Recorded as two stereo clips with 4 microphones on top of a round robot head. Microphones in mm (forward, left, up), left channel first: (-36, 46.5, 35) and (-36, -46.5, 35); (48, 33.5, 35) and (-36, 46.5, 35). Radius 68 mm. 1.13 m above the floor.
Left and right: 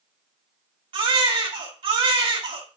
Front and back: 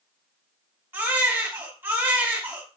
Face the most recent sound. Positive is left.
turn(degrees=-120)